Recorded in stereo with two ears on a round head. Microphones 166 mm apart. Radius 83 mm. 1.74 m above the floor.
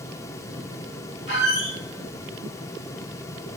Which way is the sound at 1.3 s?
60° left (ahead or behind).